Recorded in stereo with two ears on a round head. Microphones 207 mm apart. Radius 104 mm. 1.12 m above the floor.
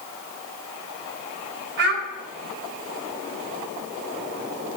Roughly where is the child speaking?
Right.